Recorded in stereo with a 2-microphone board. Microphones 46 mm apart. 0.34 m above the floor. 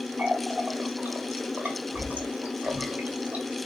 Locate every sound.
0.2 s a running tap: 30° right (ahead or behind), 1.1 m